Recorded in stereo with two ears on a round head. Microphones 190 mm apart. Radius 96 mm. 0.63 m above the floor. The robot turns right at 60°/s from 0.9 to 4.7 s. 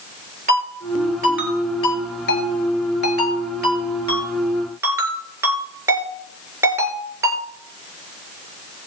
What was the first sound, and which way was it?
A ringtone, 35° right (ahead or behind).